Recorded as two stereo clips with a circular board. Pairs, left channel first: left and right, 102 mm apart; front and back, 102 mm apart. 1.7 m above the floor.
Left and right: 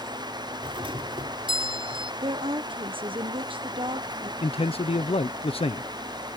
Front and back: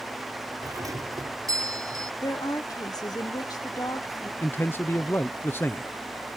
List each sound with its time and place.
0.6 s a doorbell: 125° right
2.2 s a woman speaking: 55° right
4.4 s a man speaking: 70° left